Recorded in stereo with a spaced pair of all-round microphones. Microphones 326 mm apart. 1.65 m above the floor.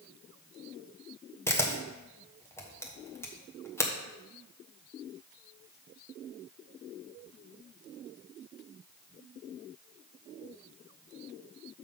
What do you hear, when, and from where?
1.5 s a camera shutter: 10° left (ahead or behind), 1.2 m